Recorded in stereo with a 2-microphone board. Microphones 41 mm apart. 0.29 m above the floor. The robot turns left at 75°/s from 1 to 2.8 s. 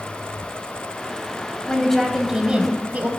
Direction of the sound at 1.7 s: 30° left.